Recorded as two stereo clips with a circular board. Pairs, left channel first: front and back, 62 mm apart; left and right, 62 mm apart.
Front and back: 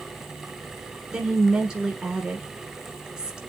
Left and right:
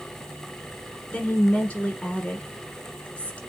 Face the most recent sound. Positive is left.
turn(degrees=120)